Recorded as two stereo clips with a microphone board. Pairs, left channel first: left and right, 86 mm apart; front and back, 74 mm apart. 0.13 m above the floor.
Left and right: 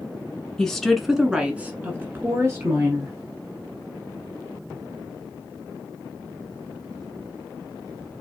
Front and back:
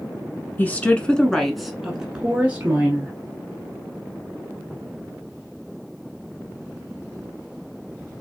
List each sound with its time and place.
0.6 s a woman speaking: 20° left, 1.1 m; by 3.1 s 130° right, 1.5 m